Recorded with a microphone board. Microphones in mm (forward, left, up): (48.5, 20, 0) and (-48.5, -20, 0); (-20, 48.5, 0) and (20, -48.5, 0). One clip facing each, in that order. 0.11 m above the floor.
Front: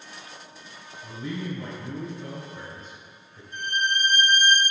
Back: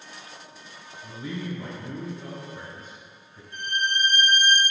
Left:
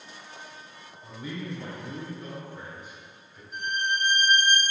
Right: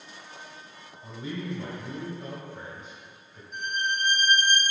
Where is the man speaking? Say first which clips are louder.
Front 1 dB, right 2 dB; 95° right, 1.3 m.